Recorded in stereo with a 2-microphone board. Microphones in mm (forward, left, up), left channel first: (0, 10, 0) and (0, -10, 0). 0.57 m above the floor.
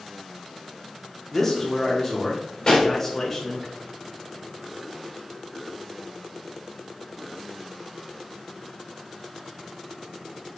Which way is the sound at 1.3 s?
15° left (ahead or behind).